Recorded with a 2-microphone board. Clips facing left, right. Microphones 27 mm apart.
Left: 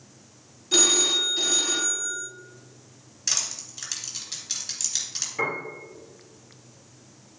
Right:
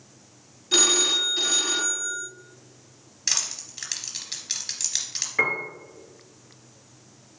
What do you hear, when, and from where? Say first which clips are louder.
0.7 s a phone ringing: right 1 dB; 20° right (ahead or behind), 0.8 m
3.3 s crushing: right 1 dB; 25° right (ahead or behind), 1.9 m
5.4 s a piano: right 5 dB; 45° right (ahead or behind), 2.5 m